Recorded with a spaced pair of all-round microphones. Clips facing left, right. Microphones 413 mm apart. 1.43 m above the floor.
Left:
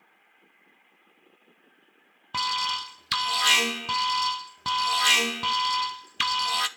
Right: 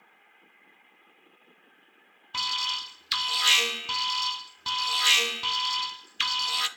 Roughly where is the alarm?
Left.